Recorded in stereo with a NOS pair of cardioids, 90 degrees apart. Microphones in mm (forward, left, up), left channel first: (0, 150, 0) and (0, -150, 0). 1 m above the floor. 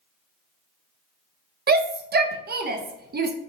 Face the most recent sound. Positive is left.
turn(degrees=-35)